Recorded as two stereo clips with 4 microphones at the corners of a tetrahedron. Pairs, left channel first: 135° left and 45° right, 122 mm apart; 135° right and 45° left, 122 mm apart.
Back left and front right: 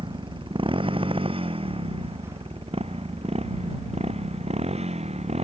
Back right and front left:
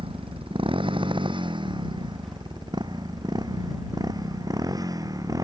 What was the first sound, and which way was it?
A motorcycle, straight ahead.